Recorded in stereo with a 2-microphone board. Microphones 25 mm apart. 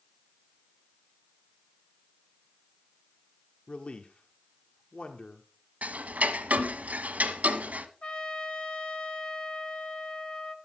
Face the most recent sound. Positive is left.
turn(degrees=45)  # may be behind; listen again after turning